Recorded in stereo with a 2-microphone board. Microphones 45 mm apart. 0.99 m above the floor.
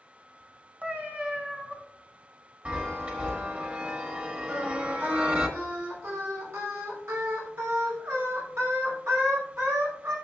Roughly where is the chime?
Right.